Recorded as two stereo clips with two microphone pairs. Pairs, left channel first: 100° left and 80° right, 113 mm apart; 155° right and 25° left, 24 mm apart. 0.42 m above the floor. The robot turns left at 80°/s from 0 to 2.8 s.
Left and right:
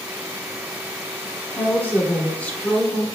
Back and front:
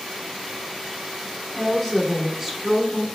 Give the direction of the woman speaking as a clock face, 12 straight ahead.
8 o'clock.